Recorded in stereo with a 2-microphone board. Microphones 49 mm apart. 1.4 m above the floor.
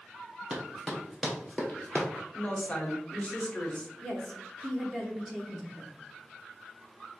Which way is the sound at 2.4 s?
25° left (ahead or behind).